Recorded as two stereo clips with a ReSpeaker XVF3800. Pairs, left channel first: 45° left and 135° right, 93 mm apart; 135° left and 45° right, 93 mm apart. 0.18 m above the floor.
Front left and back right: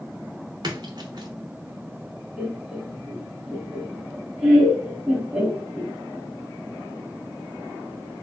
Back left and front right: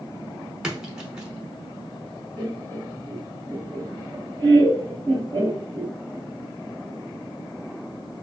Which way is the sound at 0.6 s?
125° right.